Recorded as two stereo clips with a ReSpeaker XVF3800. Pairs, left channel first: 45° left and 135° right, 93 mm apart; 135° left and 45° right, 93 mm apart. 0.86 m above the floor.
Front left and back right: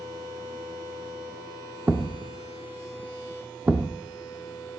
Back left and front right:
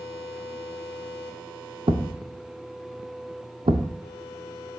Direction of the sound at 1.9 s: 60° right.